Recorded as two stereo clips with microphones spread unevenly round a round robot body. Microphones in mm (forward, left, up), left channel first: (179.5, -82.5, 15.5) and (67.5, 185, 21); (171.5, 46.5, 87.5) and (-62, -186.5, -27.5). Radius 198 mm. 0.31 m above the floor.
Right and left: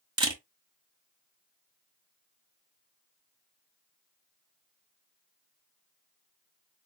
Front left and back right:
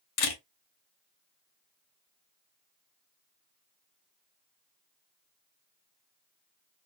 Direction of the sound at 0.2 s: 40° left.